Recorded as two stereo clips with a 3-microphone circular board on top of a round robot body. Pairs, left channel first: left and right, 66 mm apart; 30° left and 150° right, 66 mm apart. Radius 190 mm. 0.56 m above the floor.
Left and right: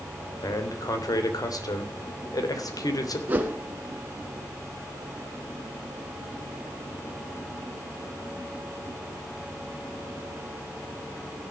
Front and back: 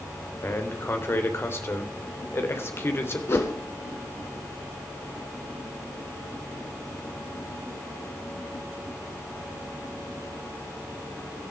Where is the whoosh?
25° right, 1.2 m.